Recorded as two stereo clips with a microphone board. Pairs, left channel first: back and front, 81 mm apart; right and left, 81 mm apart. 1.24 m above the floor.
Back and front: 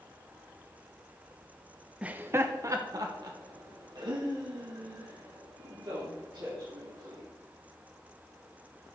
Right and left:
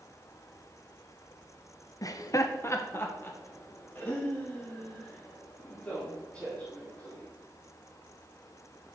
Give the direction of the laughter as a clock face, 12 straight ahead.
2 o'clock.